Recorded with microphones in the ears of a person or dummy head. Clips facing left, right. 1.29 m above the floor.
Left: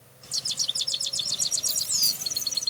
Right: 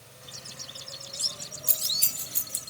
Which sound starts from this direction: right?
Keys jangling, at 1.7 s.